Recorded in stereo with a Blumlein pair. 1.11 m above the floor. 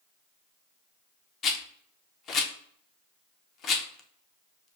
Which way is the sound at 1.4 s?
30° left.